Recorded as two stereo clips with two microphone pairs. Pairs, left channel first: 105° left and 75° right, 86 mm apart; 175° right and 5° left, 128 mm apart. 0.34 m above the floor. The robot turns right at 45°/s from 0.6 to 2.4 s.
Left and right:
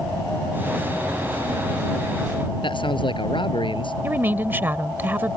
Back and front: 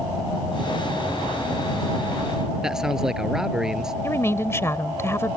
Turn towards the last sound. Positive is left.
turn(degrees=-125)